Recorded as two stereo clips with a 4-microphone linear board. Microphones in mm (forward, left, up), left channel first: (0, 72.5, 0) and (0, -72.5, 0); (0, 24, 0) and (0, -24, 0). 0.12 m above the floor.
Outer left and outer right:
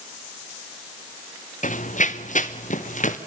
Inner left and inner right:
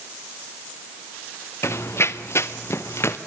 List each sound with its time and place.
1.6 s running footsteps: 60° left (ahead or behind), 0.7 m